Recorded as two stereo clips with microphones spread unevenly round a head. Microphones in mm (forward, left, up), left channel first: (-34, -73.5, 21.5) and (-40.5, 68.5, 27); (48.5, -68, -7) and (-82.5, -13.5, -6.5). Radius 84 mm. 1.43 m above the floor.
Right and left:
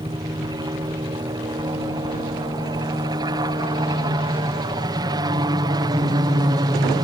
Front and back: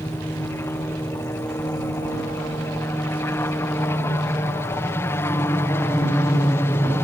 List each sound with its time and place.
0.0 s a helicopter: 45° left